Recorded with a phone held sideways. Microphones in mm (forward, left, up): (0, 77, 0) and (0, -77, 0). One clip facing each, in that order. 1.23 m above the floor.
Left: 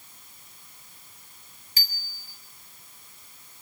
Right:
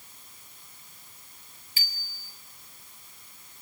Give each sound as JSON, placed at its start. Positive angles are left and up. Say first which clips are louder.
{"t": 1.8, "sound": "a bicycle bell", "louder": "left 2 dB", "side_deg": 40, "distance_m": 4.0}